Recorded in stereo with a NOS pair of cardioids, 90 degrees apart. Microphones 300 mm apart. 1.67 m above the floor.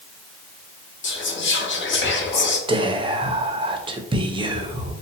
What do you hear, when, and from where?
1.0 s whispering: 40° left, 0.9 m
2.7 s whispering: 15° right, 0.5 m